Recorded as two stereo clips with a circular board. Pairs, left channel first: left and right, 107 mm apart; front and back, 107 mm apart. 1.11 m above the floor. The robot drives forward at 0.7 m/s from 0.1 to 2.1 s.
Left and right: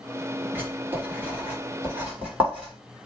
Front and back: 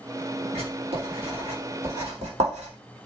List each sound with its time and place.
0.6 s writing: 160° right, 3 m; by 2.7 s 165° right, 4 m